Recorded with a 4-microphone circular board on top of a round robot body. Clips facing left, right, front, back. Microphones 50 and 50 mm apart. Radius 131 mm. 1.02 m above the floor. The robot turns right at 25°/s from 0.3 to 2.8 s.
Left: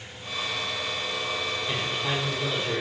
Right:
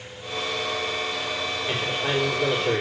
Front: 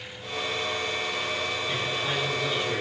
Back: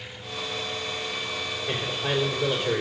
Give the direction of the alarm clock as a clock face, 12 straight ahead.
No alarm clock in this recording.